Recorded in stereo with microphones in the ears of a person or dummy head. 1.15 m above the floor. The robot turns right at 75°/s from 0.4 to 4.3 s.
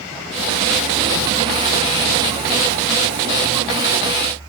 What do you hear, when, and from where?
Only background noise.